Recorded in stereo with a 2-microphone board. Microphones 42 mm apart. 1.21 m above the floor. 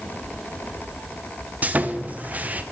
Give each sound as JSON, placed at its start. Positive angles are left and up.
{"t": 1.6, "sound": "sawing", "side_deg": -40, "distance_m": 0.7}